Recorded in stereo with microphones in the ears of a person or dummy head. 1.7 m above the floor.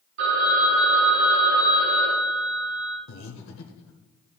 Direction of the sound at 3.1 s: 70° left (ahead or behind).